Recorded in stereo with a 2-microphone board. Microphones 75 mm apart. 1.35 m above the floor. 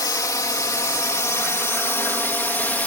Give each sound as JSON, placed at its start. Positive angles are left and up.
{"t": 0.0, "sound": "a drone", "side_deg": 50}